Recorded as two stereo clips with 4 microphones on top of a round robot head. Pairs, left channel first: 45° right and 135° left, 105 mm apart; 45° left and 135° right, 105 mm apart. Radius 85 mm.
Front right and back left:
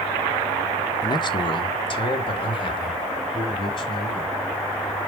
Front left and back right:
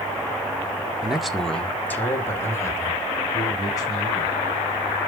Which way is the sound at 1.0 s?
55° right.